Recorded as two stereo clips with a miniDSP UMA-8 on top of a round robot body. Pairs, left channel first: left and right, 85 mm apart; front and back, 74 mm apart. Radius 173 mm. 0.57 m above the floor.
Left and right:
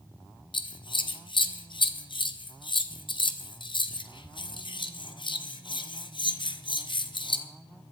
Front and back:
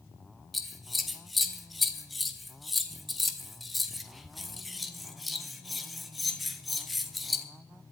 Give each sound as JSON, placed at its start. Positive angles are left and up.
{"t": 0.5, "sound": "scissors", "azimuth_deg": 90, "distance_m": 1.3}